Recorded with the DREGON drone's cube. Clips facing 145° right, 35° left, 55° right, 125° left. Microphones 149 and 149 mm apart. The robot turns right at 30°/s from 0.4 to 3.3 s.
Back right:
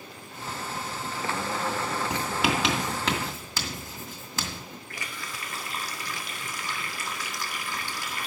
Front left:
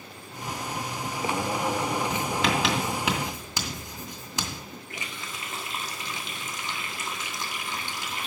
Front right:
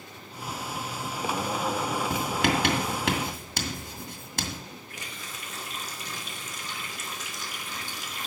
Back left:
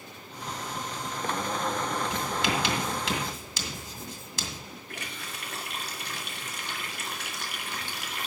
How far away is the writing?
About 2.0 m.